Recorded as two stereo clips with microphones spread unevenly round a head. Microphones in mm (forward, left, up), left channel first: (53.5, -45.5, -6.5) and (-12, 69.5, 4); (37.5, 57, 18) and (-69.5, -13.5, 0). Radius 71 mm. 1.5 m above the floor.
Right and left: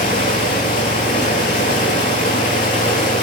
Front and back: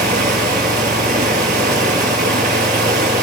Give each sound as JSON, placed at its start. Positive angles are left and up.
{"t": 0.0, "sound": "running water", "azimuth_deg": -105, "distance_m": 5.0}